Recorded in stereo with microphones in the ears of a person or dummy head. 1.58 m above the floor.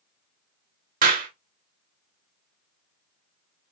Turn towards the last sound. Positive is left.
turn(degrees=-45)  # may be behind; listen again after turning